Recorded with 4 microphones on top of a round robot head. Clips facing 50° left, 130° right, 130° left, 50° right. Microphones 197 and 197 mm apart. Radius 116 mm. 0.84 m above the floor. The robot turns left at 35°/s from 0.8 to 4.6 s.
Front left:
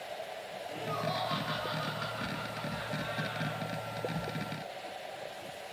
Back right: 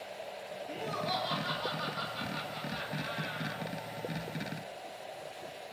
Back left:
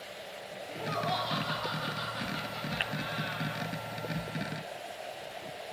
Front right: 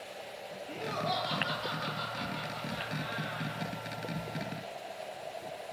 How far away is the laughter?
About 4 m.